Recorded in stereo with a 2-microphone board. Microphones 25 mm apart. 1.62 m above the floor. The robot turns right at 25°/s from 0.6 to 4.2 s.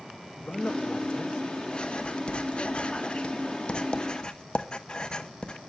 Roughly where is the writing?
Left.